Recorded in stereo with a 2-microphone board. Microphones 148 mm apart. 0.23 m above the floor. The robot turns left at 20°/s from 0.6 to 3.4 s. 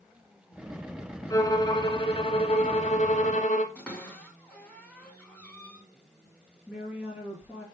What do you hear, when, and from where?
1.3 s a violin: 155° left, 0.9 m; by 3.6 s 110° left, 0.9 m
3.8 s a cupboard door: 10° left (ahead or behind), 2 m
6.7 s a woman speaking: 5° right (ahead or behind), 4 m